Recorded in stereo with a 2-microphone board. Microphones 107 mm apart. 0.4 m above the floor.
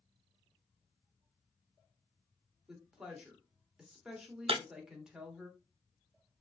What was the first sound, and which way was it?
A woman speaking, 5° right (ahead or behind).